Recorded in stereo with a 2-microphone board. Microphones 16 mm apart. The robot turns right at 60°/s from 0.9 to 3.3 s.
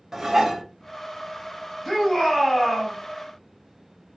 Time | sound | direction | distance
0.1 | dishes clattering | 35° right (ahead or behind) | 0.9 m
1.9 | a shout | 10° right | 2 m